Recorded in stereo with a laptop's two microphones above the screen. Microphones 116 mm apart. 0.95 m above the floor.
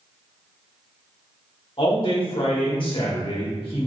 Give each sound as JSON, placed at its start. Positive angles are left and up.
{"t": 1.8, "sound": "a man speaking", "side_deg": 50, "distance_m": 1.2}